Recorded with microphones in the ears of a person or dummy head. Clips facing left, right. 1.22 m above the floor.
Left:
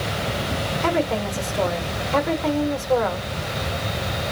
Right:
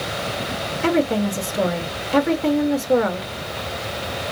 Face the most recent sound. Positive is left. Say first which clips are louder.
# right 4 dB
turn(degrees=-25)  # may be behind; listen again after turning